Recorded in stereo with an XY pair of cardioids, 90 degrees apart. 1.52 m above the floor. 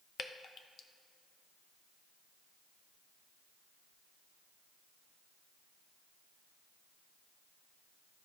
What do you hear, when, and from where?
0.2 s dripping: 55° left, 0.6 m